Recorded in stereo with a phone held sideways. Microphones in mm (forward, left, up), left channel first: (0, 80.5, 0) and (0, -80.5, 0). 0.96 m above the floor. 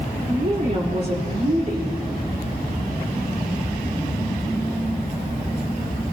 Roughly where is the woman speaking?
Right.